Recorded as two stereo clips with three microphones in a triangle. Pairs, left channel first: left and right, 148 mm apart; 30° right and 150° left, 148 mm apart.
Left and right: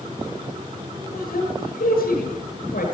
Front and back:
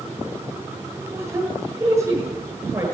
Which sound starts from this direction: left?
A woman speaking, at 1.1 s.